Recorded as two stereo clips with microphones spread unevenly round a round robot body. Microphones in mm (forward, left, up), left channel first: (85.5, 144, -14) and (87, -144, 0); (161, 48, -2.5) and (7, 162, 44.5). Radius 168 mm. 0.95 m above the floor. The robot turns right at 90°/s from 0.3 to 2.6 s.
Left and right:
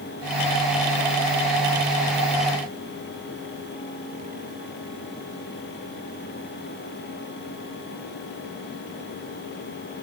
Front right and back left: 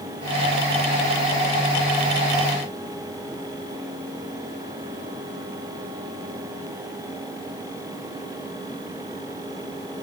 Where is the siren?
No siren in this recording.